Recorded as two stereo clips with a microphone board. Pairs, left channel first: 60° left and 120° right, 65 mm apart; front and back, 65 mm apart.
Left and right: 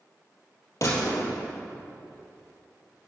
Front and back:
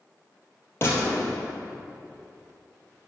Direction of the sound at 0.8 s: 40° left.